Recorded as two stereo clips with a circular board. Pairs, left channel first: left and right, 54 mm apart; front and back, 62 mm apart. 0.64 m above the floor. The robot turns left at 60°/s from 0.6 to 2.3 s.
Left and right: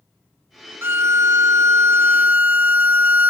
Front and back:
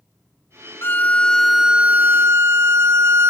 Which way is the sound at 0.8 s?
50° right.